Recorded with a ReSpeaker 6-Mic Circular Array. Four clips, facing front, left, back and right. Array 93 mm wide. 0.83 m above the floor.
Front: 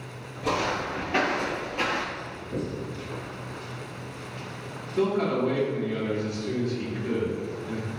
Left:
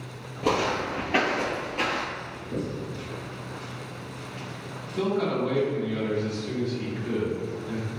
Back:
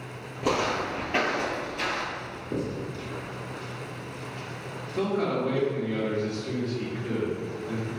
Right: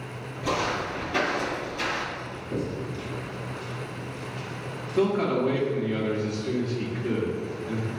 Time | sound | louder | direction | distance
0.4 | footsteps | left 2 dB, back 1 dB | 130° left | 1.3 m
2.1 | writing | right 1 dB, back 1 dB | 170° right | 1.7 m
5.0 | a man speaking | right 2 dB, front 2 dB | 95° right | 1.3 m